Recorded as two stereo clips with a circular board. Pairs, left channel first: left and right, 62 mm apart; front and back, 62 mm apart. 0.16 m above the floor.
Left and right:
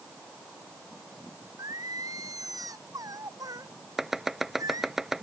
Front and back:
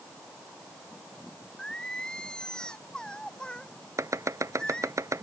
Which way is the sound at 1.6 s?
75° right.